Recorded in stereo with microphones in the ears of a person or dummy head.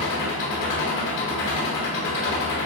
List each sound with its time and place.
0.0 s an engine running: 60° left (ahead or behind), 1.9 m